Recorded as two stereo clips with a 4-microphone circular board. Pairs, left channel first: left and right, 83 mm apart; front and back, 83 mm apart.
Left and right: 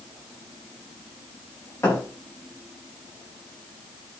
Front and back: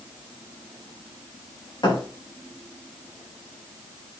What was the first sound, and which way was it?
A thud, 35° left.